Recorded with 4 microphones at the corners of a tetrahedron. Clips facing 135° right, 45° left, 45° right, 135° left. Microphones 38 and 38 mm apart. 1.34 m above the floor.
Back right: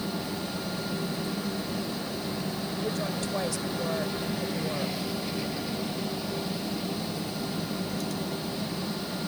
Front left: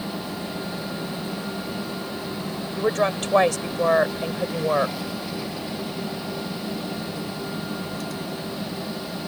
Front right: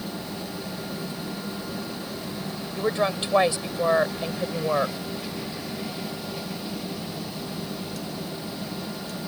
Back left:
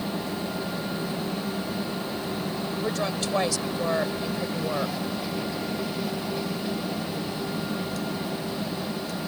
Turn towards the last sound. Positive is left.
turn(degrees=20)